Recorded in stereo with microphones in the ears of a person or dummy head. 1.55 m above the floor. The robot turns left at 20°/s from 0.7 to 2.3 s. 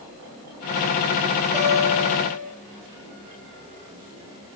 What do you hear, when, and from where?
1.5 s a guitar: 15° right (ahead or behind), 6 m; by 2.5 s 30° right (ahead or behind), 6 m